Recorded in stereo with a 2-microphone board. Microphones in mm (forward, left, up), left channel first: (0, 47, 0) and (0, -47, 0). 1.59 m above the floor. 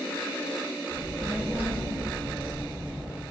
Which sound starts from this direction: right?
A child speaking, at 0.9 s.